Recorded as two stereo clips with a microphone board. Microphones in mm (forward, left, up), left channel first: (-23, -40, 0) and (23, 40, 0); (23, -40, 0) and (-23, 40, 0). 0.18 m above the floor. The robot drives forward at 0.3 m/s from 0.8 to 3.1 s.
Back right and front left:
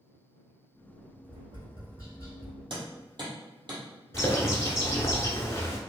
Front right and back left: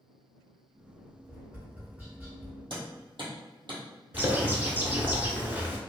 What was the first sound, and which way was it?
Tapping, 40° left.